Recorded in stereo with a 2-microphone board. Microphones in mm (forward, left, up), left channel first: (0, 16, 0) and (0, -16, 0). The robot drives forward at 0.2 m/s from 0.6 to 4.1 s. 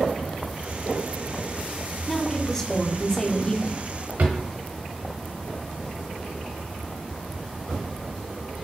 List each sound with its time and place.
2.1 s a woman speaking: 15° left (ahead or behind), 0.8 m; by 3.8 s 20° left (ahead or behind), 0.6 m
4.2 s a drawer: 65° right (ahead or behind), 0.7 m